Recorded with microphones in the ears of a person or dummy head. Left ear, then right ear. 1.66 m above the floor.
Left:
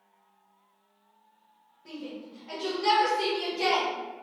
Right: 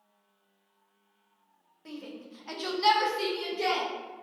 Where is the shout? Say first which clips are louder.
Left 2 dB; 50° right (ahead or behind), 1.0 m; by 3.9 s 5° left (ahead or behind), 1.0 m.